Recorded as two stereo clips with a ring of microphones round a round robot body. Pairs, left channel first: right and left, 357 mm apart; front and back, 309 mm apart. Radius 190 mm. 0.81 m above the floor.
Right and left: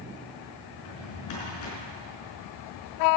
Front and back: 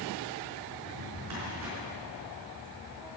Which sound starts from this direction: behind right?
A drawer, at 0.7 s.